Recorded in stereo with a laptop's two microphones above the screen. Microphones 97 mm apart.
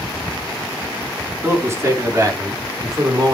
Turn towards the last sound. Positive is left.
turn(degrees=-45)  # may be behind; listen again after turning